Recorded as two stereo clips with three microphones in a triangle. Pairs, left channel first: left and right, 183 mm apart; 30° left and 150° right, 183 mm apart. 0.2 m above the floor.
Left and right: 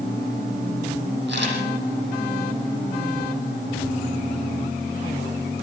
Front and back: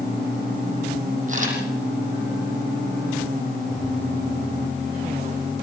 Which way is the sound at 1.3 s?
105° right.